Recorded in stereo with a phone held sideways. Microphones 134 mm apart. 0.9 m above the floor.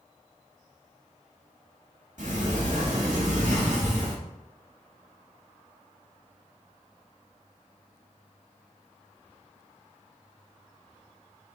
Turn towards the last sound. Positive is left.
turn(degrees=-70)  # may be behind; listen again after turning